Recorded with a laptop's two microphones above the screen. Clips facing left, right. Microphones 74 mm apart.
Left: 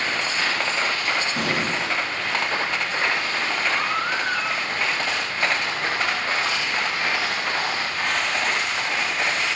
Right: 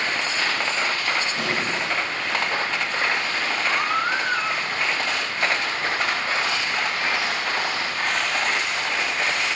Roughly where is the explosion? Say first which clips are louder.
Left 1 dB; left.